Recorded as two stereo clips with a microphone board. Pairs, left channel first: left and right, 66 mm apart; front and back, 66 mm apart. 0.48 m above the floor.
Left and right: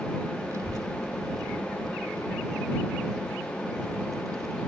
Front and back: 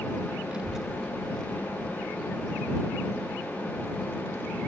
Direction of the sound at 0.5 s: 110° right.